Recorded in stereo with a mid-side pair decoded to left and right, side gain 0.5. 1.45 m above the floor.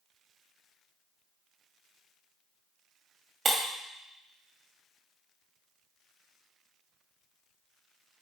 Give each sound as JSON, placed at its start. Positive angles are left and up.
{"t": 3.5, "sound": "breaking glass", "azimuth_deg": -40, "distance_m": 1.7}